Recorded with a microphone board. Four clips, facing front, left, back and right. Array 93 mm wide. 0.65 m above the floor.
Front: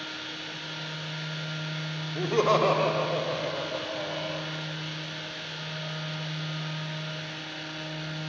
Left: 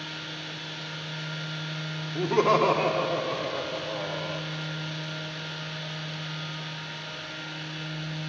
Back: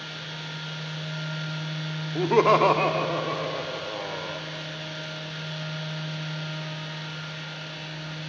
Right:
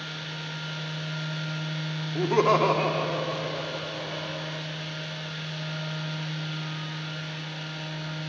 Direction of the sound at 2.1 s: 165° right.